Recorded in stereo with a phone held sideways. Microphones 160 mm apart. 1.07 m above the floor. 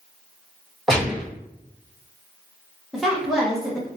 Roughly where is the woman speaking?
Centre.